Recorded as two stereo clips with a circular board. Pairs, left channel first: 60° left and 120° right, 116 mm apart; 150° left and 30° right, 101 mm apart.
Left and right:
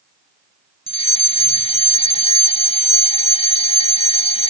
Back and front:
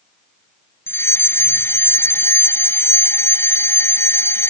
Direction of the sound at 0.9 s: 85° left.